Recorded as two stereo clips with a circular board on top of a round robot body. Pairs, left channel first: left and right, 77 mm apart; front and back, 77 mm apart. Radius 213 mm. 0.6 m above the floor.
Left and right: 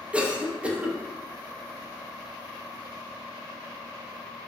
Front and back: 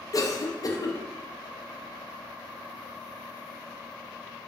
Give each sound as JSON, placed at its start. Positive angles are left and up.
{"t": 0.1, "sound": "a cough", "azimuth_deg": -20, "distance_m": 0.6}